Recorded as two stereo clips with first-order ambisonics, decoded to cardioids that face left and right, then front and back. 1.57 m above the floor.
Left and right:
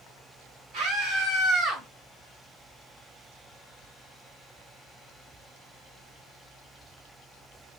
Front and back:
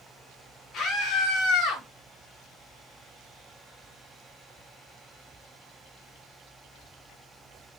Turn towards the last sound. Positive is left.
turn(degrees=-30)